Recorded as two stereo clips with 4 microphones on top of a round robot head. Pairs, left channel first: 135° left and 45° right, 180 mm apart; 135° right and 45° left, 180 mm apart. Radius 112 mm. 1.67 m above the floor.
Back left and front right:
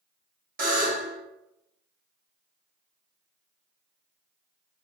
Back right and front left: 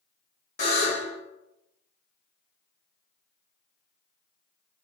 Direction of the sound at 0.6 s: 85° right.